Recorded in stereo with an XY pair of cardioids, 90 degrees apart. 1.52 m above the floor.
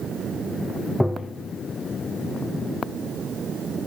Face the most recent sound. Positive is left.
turn(degrees=15)